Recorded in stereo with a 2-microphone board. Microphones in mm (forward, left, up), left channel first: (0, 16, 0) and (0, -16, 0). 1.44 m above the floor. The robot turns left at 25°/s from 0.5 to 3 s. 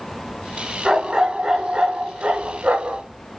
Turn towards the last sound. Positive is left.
turn(degrees=-55)